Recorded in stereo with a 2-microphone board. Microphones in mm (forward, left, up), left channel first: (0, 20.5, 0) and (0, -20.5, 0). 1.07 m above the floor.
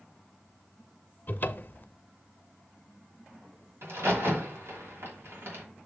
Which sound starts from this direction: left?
A cupboard door, at 1.3 s.